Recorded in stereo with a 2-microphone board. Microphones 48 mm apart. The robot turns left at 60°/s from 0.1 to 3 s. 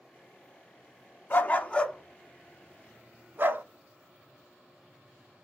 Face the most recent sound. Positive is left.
turn(degrees=-40)  # may be behind; listen again after turning